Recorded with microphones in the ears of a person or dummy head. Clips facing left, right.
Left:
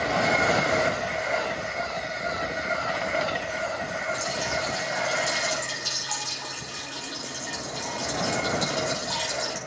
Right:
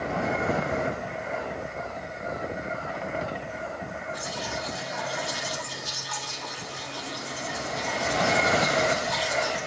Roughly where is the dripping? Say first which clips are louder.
Left 3 dB; left.